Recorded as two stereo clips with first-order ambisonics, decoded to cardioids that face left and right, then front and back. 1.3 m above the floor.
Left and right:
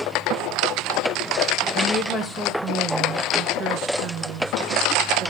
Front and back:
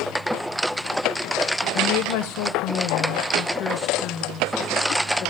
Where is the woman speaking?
25° left, 1.1 m; by 5.3 s 60° right, 2.5 m.